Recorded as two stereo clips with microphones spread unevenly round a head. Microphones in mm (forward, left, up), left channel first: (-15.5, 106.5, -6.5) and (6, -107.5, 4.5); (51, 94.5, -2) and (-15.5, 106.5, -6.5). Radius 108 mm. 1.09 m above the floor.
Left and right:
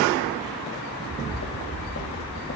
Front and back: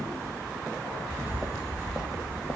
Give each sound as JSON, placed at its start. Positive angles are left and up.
{"t": 0.9, "sound": "footsteps", "azimuth_deg": 95, "distance_m": 2.0}